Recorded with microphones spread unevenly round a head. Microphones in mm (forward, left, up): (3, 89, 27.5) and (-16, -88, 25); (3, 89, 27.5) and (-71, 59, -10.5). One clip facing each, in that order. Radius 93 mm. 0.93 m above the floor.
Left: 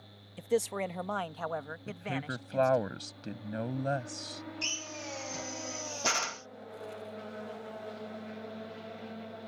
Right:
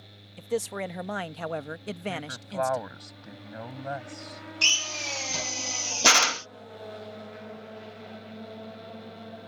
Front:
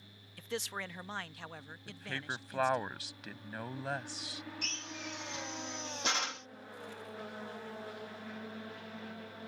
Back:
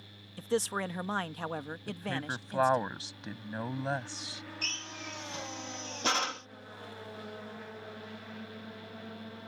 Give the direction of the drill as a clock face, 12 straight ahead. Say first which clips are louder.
Right 3 dB, back 1 dB; 3 o'clock.